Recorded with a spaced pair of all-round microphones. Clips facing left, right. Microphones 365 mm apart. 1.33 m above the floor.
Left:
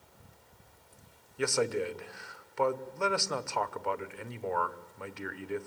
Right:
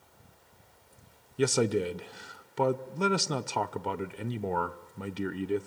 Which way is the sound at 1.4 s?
50° right (ahead or behind).